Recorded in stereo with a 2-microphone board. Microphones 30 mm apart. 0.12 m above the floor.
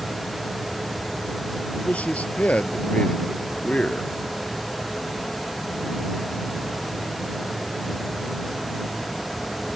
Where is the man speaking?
55° left (ahead or behind); by 4.1 s 40° left (ahead or behind).